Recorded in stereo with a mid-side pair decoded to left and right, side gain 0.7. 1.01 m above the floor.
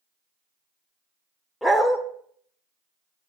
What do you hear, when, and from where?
1.6 s a dog barking: 5° left, 1.3 m